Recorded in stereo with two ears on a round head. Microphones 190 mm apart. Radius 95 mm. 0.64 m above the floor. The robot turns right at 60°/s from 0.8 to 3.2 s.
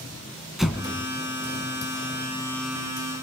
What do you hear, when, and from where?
0.6 s an explosion: centre (ahead or behind), 1.7 m; by 1.1 s 15° left (ahead or behind), 1.7 m